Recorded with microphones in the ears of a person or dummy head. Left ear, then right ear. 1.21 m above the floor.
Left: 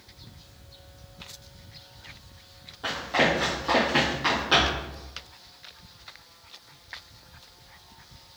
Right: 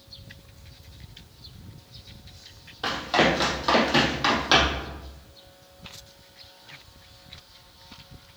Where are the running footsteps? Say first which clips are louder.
Right 2 dB; 50° right (ahead or behind), 2.5 m; by 4.9 s 35° right (ahead or behind), 3.5 m.